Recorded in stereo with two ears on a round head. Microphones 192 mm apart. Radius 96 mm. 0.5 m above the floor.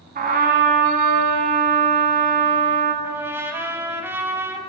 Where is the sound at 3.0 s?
10° right (ahead or behind), 0.7 m.